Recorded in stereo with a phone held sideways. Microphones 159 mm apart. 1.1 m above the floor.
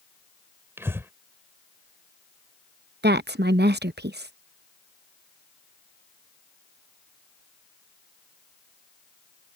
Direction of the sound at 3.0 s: 80° right.